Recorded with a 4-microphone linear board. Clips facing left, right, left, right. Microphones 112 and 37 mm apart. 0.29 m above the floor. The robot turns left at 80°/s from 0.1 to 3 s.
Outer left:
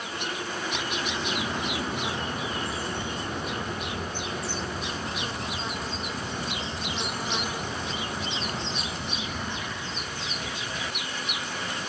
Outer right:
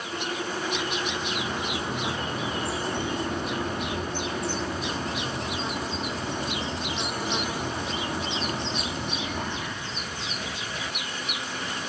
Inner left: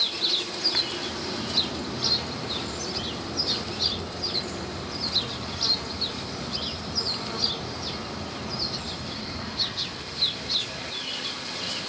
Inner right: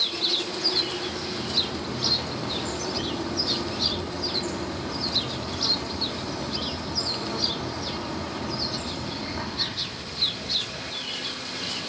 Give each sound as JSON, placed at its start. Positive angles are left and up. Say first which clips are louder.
{"t": 0.7, "sound": "a bird", "louder": "outer right 2 dB, inner right 1 dB", "azimuth_deg": 60, "distance_m": 3.0}